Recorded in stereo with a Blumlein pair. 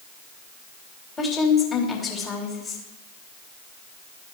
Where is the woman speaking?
20° left, 2.5 m.